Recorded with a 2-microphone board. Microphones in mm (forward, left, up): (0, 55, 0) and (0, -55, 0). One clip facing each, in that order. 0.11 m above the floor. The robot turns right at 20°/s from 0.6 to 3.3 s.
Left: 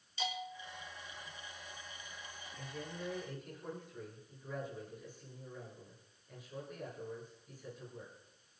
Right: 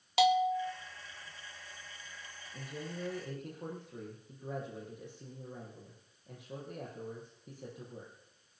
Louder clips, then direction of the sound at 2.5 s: Right 4 dB; 70° right (ahead or behind).